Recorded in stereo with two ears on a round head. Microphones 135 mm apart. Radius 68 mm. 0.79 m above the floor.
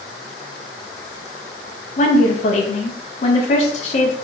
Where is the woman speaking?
45° left (ahead or behind), 0.6 m.